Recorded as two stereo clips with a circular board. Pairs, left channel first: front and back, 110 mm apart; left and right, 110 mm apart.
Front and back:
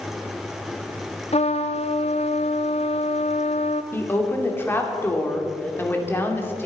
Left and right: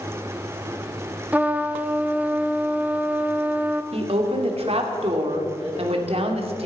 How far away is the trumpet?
About 0.7 m.